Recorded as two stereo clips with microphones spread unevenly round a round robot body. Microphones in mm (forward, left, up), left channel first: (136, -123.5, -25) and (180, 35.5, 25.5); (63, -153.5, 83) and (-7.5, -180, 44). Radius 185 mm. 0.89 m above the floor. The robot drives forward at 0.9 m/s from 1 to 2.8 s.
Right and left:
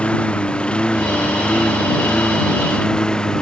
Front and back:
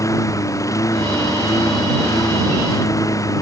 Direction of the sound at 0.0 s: 20° right.